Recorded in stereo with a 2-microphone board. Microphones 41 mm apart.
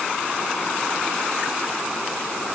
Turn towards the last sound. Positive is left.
No sound to turn to.